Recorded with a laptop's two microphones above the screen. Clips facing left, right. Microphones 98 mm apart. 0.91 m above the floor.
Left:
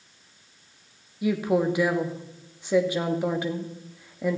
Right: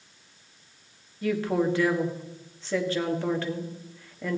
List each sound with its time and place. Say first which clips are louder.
1.2 s a woman speaking: left 2 dB; 15° left (ahead or behind), 1.6 m